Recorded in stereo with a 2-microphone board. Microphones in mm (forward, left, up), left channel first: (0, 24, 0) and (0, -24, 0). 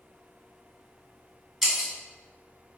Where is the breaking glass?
10° right (ahead or behind), 1.3 m.